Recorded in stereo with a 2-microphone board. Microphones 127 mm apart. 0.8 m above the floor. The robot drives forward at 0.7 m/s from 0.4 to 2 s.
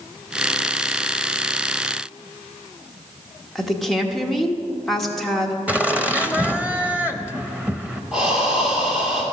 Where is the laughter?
10° right (ahead or behind), 0.6 m.